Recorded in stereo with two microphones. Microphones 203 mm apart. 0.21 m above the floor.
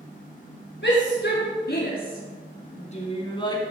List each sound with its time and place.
0.8 s a shout: 65° left (ahead or behind), 4 m; by 3.7 s 15° left (ahead or behind), 2.5 m